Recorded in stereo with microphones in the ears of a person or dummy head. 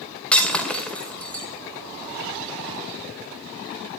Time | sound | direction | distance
0.3 | breaking glass | 10° left (ahead or behind) | 2 m